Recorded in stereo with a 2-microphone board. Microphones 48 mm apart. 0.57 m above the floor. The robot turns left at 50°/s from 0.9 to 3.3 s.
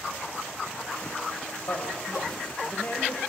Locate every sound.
1.7 s a woman speaking: 105° left, 2.5 m; by 3.2 s 30° left, 2.5 m